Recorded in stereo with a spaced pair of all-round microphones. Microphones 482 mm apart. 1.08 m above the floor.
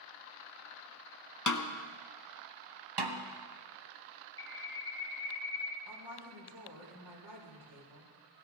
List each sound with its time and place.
1.5 s a snare drum: 35° left (ahead or behind), 0.9 m
3.0 s a snare drum: 50° right (ahead or behind), 1.0 m
4.4 s a bird: 25° right (ahead or behind), 1.7 m
5.8 s a woman speaking: 65° right (ahead or behind), 4 m